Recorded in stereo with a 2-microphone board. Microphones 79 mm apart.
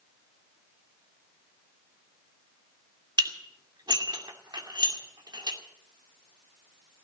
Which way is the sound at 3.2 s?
65° right (ahead or behind).